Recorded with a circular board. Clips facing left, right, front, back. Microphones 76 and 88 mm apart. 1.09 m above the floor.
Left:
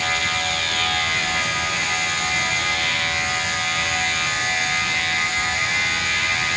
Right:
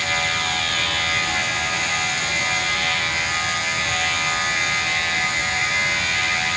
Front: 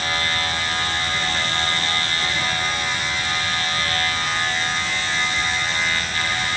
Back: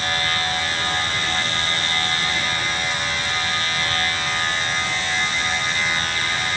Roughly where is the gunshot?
No gunshot in this recording.